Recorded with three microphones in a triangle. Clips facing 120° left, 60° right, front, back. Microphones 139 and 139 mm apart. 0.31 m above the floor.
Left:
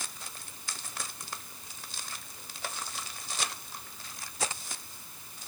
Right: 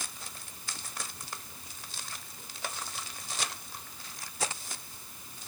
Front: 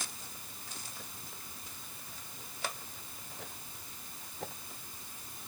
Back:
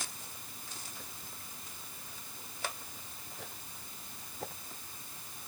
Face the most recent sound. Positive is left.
No sound to turn to.